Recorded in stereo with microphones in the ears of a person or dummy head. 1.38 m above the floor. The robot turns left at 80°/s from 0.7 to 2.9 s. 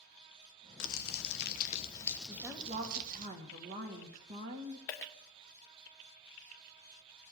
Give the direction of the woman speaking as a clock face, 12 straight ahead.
12 o'clock.